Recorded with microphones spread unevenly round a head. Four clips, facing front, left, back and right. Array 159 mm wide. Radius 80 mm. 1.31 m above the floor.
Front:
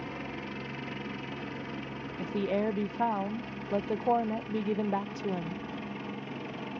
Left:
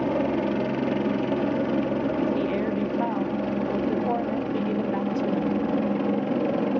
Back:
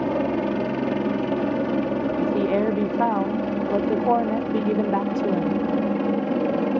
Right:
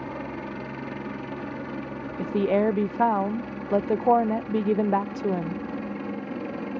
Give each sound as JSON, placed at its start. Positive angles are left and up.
{"t": 0.0, "sound": "a helicopter", "azimuth_deg": 140}
{"t": 2.2, "sound": "a woman speaking", "azimuth_deg": -125}